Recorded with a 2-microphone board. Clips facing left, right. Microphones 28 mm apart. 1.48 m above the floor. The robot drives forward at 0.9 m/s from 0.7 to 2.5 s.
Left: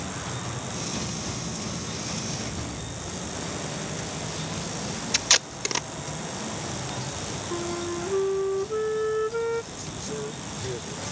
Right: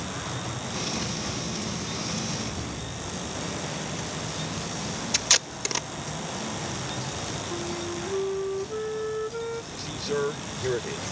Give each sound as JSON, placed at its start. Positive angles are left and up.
{"t": 5.1, "sound": "tape being pulled", "side_deg": 10}
{"t": 7.5, "sound": "a flute", "side_deg": 25}
{"t": 9.7, "sound": "a man speaking", "side_deg": -45}